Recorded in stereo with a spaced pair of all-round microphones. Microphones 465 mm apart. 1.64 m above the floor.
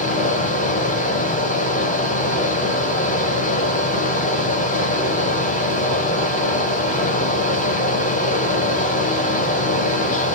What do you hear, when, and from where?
0.0 s a fan: 15° left (ahead or behind), 0.8 m